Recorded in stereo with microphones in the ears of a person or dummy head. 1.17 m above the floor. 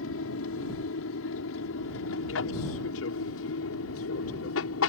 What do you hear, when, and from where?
0.0 s an aircraft: 65° left (ahead or behind); by 4.9 s 70° left (ahead or behind)